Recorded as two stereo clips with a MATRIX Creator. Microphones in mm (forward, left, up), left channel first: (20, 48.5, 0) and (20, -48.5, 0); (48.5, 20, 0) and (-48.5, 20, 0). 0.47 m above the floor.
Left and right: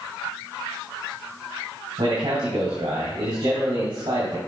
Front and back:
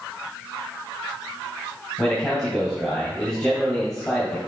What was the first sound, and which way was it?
A man speaking, 80° right.